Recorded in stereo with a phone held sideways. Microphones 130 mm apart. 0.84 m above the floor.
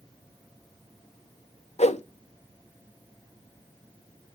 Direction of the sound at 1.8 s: 65° left (ahead or behind).